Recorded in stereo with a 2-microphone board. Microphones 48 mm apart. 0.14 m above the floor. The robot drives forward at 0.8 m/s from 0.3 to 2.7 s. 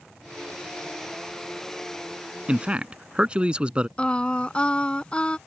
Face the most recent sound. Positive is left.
turn(degrees=25)  # may be behind; listen again after turning